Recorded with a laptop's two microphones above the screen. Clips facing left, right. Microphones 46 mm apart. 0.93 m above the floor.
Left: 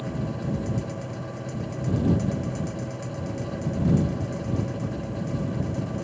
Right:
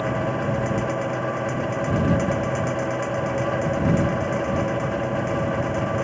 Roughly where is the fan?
Right.